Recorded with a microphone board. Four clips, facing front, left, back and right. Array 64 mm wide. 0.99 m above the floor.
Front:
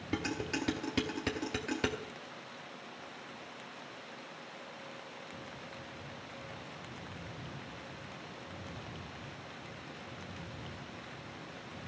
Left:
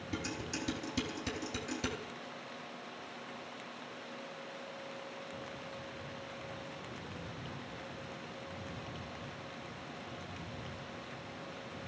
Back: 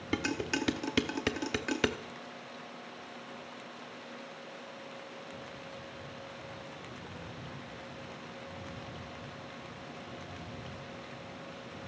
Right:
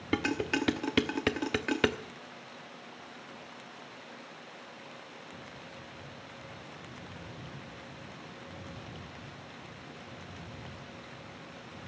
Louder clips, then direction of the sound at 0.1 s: Right 11 dB, back 3 dB; 110° right.